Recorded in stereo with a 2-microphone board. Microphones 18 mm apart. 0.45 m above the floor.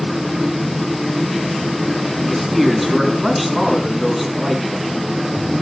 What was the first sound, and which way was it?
A man speaking, 5° right (ahead or behind).